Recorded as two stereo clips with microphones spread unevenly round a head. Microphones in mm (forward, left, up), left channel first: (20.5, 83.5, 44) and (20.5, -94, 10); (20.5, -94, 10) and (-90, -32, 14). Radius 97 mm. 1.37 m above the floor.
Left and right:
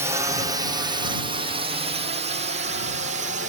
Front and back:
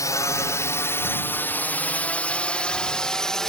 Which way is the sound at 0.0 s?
60° right.